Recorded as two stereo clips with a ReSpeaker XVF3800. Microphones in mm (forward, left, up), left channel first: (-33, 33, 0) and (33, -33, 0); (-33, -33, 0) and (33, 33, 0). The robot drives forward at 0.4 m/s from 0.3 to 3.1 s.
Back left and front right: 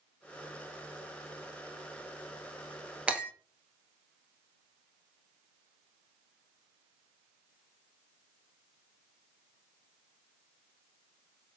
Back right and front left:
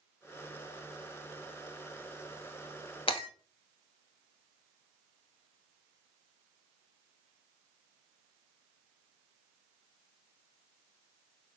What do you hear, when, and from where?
3.1 s breaking glass: 120° right, 1.1 m; by 3.3 s 125° right, 1.1 m